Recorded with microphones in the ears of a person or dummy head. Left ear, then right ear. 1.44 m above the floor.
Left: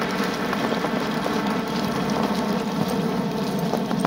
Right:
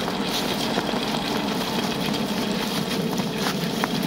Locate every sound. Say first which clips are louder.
0.0 s a helicopter: left 1 dB; 55° left (ahead or behind)